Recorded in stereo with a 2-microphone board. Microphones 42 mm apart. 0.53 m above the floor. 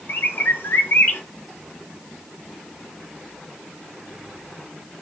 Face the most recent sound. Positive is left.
turn(degrees=60)  # may be behind; listen again after turning